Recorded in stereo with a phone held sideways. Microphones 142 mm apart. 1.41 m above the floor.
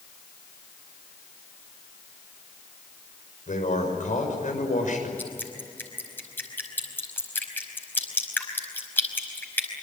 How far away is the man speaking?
About 6.5 m.